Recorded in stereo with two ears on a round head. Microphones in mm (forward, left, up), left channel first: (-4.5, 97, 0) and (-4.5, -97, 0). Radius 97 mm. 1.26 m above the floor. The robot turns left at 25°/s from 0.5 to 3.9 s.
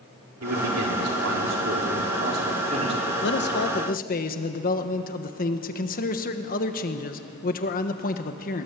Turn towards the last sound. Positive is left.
turn(degrees=40)  # may be behind; listen again after turning